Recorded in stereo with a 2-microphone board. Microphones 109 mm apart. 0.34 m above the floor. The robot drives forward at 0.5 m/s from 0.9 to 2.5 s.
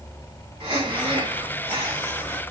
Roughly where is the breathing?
Right.